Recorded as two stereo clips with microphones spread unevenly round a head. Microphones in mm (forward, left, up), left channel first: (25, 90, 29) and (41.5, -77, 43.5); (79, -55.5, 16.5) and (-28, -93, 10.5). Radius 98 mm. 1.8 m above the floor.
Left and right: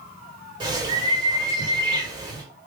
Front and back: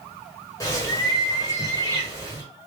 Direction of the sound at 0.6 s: 30° right.